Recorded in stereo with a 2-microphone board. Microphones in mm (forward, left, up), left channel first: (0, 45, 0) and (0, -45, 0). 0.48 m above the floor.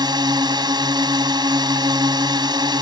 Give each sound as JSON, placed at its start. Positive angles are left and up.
{"t": 0.0, "sound": "a drone", "side_deg": -50}